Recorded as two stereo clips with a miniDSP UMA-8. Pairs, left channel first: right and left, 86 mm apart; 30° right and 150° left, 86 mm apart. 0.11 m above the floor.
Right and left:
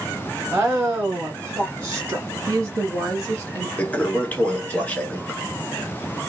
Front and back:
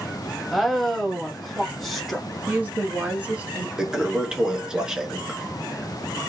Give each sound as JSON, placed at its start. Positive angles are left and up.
{"t": 0.5, "sound": "a woman speaking", "azimuth_deg": 60, "distance_m": 1.1}
{"t": 2.5, "sound": "a woman speaking", "azimuth_deg": 105, "distance_m": 1.3}
{"t": 3.8, "sound": "a toilet flushing", "azimuth_deg": -140, "distance_m": 0.8}